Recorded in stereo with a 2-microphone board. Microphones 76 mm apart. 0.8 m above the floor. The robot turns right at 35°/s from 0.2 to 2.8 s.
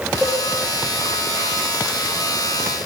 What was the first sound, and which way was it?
A cowbell, 15° right (ahead or behind).